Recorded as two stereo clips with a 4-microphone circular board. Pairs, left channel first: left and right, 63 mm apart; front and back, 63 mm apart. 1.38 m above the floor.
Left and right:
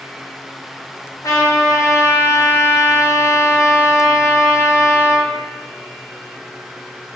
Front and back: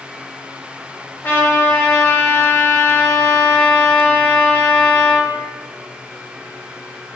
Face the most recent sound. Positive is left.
turn(degrees=60)